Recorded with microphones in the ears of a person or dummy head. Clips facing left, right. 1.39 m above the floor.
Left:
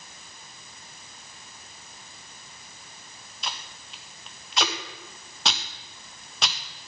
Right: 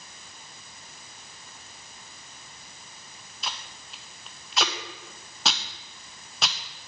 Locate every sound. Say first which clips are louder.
3.4 s tape being pulled: even; 10° right (ahead or behind), 0.7 m